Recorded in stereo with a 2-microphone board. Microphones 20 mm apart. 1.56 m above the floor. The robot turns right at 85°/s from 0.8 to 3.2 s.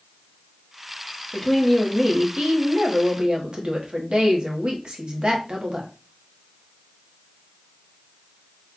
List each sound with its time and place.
1.3 s a woman speaking: 145° left, 1.1 m; by 5.9 s 55° right, 1.1 m